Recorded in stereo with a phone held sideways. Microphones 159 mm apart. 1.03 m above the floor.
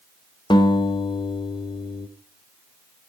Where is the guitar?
30° left (ahead or behind), 1.2 m.